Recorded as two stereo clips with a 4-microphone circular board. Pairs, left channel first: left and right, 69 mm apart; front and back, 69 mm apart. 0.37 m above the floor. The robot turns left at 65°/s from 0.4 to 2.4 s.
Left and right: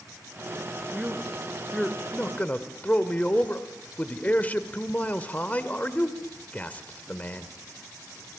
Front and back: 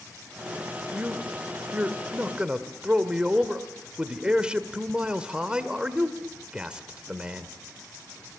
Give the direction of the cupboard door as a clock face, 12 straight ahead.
I don't hear a cupboard door.